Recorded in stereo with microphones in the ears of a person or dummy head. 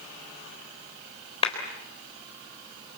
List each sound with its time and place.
1.4 s a clap: 30° left (ahead or behind), 4 m